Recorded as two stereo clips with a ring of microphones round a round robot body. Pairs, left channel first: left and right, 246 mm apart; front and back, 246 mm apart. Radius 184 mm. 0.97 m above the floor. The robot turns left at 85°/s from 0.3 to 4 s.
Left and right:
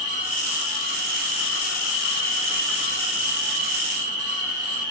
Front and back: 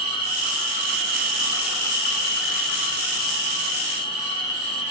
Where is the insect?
150° right, 3 m; by 4.9 s 105° right, 3 m.